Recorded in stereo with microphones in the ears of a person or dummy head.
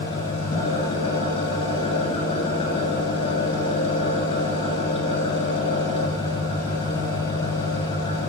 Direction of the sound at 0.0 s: 40° left (ahead or behind).